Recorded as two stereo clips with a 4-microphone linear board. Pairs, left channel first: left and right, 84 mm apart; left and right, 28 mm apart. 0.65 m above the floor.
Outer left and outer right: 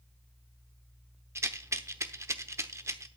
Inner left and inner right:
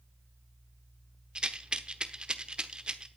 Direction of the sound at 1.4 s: 35° right (ahead or behind).